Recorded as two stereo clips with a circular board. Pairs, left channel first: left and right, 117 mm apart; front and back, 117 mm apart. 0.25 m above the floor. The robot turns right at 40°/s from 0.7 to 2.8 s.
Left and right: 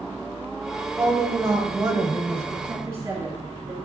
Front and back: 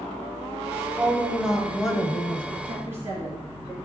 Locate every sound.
1.0 s a woman speaking: 120° right, 1.1 m; by 2.5 s 60° right, 1.1 m
2.6 s a woman speaking: 120° right, 2 m; by 3.7 s 115° right, 2 m